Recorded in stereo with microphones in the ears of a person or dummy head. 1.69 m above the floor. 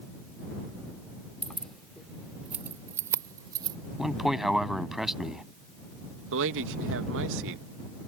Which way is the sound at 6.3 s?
75° right (ahead or behind).